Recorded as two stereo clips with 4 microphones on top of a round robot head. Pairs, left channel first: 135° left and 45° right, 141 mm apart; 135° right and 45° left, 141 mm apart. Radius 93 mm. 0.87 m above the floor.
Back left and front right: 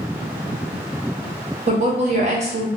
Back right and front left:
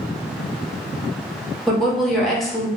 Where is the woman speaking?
45° right, 1.3 m.